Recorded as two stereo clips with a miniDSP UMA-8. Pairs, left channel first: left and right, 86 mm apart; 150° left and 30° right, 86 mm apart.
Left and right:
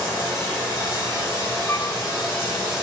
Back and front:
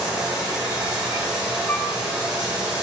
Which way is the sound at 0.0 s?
40° left.